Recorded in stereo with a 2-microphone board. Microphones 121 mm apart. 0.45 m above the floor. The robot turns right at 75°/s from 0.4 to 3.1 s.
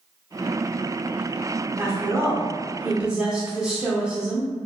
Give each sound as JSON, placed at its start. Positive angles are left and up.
{"t": 1.8, "sound": "a woman speaking", "side_deg": -20, "distance_m": 0.8}